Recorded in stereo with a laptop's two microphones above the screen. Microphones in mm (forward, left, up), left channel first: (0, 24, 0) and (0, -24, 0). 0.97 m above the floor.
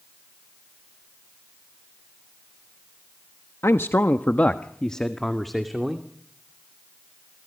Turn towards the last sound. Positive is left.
turn(degrees=-5)  # may be behind; listen again after turning